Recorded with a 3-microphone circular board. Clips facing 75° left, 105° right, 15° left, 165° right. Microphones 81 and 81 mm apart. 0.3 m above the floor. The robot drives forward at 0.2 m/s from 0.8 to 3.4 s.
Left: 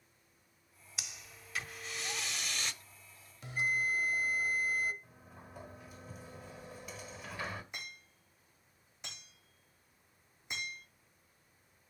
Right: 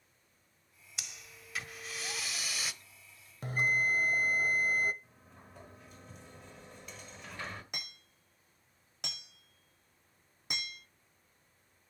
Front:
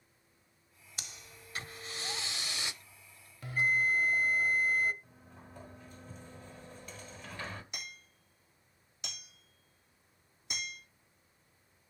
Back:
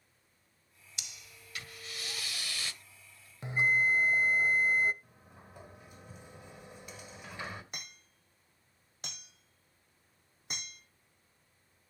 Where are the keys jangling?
No keys jangling in this recording.